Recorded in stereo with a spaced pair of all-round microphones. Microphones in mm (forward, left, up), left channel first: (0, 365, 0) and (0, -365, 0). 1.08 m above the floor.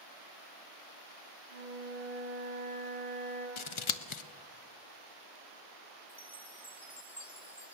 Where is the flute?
65° right (ahead or behind), 7.5 m.